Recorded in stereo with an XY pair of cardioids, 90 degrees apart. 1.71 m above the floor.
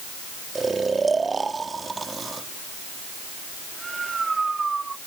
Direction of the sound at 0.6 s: 35° right.